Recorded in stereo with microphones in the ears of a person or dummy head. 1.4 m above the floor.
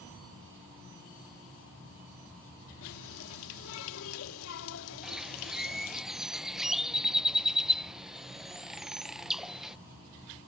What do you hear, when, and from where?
2.8 s a running tap: 80° left
5.0 s a bird: 5° right (ahead or behind)